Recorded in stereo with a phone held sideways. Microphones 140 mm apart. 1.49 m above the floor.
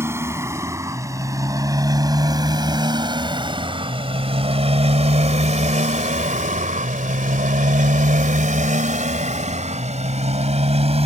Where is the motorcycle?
20° right (ahead or behind); by 11.1 s 50° right (ahead or behind).